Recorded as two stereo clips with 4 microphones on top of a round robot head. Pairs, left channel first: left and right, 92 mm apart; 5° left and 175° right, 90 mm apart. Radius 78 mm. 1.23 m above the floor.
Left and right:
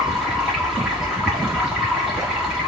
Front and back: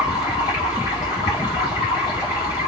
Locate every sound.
0.0 s running water: 5° right, 1.8 m